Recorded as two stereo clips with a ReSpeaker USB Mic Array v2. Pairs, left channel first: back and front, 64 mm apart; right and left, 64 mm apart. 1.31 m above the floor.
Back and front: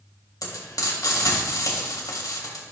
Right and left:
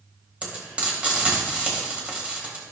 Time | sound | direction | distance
0.4 | frying | 160° left | 2.5 m